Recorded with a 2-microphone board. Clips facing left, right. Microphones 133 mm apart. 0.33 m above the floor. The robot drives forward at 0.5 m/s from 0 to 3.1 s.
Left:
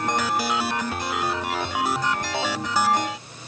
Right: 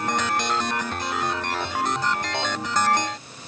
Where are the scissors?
No scissors in this recording.